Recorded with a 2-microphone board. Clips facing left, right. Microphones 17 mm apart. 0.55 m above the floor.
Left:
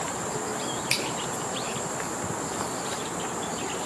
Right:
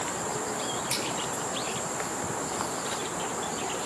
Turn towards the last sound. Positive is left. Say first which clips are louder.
# left 7 dB
turn(degrees=85)